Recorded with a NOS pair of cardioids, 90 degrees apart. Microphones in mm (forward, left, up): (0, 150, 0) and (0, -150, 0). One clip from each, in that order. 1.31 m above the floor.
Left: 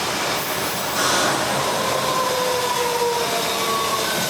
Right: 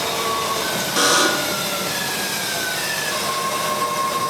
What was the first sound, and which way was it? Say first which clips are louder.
A buzzer: right 3 dB; 40° right.